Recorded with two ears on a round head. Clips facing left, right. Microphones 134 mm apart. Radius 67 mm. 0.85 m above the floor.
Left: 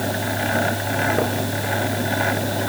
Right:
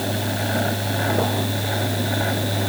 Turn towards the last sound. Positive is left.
No sound to turn to.